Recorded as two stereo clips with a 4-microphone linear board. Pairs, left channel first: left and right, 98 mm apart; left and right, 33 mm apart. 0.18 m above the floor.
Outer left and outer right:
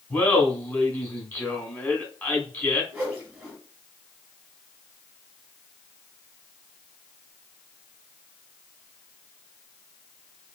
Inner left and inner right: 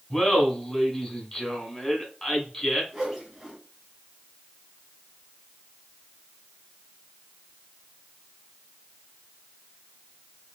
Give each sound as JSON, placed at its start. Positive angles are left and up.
{"t": 0.1, "sound": "laughter", "side_deg": 20, "distance_m": 1.3}
{"t": 2.9, "sound": "a whoosh", "side_deg": -5, "distance_m": 2.0}